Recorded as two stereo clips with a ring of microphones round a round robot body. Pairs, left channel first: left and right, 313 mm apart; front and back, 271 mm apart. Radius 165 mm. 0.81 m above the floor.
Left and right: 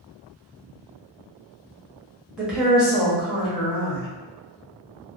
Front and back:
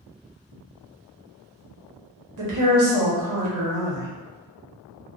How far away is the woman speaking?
About 1.1 m.